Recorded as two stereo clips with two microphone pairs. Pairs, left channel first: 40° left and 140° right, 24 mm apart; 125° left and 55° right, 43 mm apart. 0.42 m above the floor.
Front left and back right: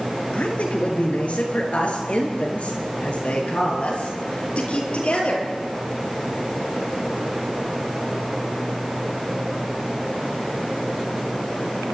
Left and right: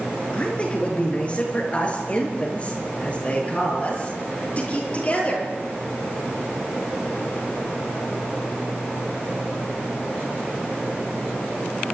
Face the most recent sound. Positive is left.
turn(degrees=70)